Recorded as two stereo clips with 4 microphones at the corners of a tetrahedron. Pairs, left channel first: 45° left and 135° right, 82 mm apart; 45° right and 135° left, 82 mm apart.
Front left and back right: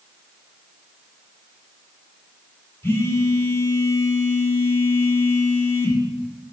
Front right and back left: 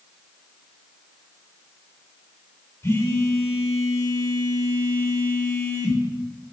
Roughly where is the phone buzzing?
Ahead.